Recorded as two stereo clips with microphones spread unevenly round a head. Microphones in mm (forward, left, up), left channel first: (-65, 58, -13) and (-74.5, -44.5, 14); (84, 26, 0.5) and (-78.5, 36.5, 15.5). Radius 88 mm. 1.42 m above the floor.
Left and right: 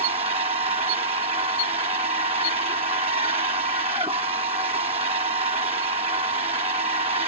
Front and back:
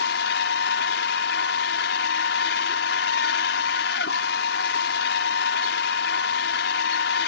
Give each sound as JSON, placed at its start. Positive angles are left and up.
{"t": 0.0, "sound": "a machine running", "azimuth_deg": -35}